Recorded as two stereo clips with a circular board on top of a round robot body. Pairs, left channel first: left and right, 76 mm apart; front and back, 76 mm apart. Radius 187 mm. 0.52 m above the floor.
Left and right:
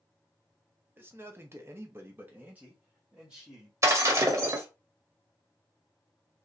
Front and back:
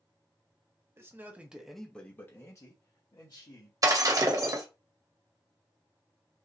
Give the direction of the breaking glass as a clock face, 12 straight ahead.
5 o'clock.